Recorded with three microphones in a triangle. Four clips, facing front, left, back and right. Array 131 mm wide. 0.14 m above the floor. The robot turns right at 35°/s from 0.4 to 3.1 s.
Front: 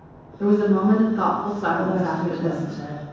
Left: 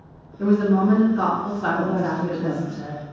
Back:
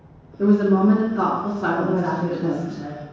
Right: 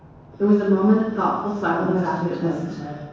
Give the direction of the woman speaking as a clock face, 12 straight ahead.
6 o'clock.